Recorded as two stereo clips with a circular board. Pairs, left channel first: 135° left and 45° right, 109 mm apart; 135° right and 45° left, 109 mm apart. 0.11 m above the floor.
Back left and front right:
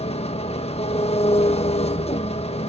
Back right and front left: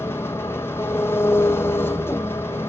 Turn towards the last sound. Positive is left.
turn(degrees=155)